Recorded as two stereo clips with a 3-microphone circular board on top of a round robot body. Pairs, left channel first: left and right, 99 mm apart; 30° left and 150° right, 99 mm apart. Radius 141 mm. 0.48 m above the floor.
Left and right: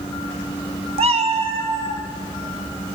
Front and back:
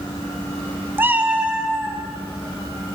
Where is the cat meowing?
80° right, 0.7 m; by 2.0 s 70° right, 1.8 m.